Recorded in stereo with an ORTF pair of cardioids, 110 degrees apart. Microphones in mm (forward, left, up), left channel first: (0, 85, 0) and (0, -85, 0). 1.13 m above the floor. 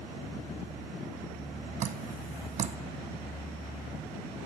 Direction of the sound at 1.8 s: 45° right.